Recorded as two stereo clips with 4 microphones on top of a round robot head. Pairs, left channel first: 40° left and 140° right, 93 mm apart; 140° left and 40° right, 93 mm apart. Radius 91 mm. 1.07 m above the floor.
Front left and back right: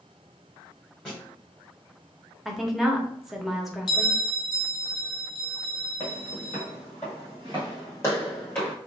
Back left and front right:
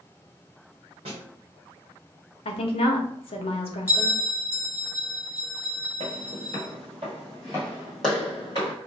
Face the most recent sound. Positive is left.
turn(degrees=110)